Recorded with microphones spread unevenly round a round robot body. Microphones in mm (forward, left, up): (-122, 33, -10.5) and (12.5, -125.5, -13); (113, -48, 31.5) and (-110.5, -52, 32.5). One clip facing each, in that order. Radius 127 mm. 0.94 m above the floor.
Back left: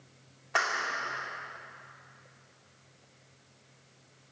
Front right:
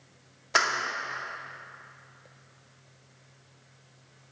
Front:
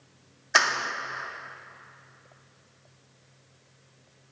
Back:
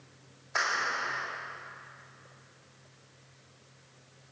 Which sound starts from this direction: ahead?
A clap, at 0.6 s.